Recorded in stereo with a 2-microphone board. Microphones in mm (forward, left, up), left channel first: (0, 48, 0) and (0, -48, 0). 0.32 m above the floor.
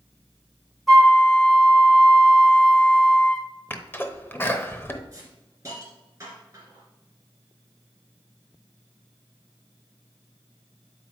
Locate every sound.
0.9 s a flute: centre (ahead or behind), 1.2 m
3.7 s a sneeze: 20° left (ahead or behind), 0.9 m
5.1 s a hiss: 35° right (ahead or behind), 2.5 m